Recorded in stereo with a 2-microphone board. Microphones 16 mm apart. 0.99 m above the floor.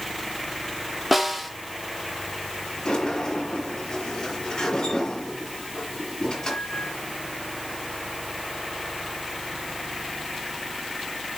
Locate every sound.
1.1 s a snare drum: 5° right (ahead or behind), 1.4 m
2.9 s a sliding door: 65° left (ahead or behind), 5.5 m